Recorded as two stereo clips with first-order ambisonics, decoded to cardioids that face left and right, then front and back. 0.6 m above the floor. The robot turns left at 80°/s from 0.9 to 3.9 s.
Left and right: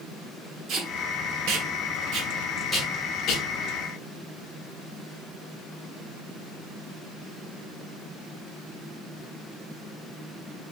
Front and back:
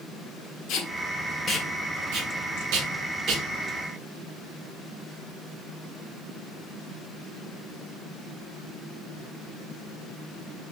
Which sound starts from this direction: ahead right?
Tape being pulled, at 0.7 s.